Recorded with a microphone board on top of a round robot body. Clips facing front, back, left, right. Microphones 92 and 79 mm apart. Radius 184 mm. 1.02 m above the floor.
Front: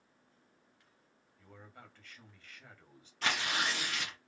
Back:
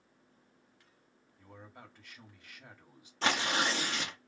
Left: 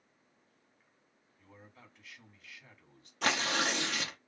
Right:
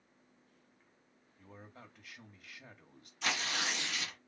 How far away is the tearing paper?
About 0.5 m.